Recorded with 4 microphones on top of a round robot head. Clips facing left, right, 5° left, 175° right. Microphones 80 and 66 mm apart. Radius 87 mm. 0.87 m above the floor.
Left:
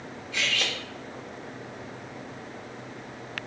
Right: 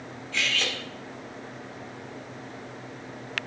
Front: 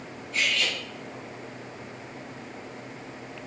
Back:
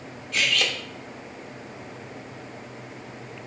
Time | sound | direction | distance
0.3 | cutlery clinking | 170° left | 0.8 m